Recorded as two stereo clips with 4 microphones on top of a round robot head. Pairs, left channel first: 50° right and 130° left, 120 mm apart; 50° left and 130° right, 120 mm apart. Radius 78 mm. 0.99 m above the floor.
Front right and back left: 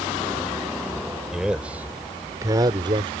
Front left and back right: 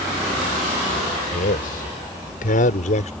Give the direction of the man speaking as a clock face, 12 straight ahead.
11 o'clock.